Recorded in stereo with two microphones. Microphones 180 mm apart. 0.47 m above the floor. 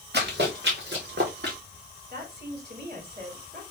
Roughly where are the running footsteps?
Right.